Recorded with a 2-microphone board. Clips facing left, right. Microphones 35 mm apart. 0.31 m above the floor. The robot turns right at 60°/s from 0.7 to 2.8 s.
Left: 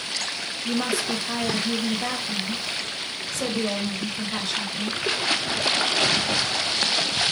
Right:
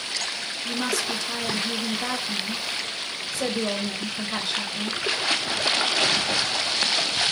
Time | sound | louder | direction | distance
0.7 | a woman speaking | left 2 dB | 95° left | 0.9 m